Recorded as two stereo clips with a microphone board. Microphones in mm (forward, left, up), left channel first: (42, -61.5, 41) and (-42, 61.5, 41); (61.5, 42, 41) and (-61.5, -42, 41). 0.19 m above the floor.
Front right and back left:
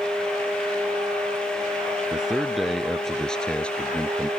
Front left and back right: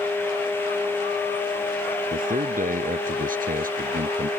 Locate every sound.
2.1 s a man speaking: 150° right; by 4.3 s 135° right